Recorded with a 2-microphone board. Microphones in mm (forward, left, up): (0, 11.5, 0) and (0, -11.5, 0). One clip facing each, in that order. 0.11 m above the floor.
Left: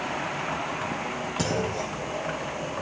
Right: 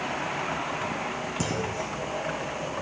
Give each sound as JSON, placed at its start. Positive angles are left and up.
{"t": 1.4, "sound": "a clunk", "side_deg": 75, "distance_m": 4.0}